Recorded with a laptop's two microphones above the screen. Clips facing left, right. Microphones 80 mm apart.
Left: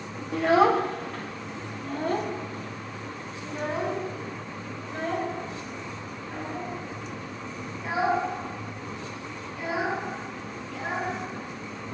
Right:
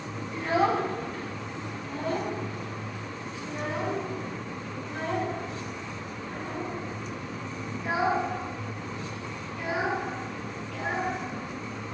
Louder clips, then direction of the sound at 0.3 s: Left 5 dB; 80° left.